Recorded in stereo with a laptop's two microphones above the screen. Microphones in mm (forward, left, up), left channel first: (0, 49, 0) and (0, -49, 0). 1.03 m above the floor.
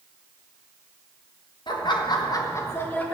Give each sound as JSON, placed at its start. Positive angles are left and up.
{"t": 1.7, "sound": "laughter", "side_deg": 50, "distance_m": 1.1}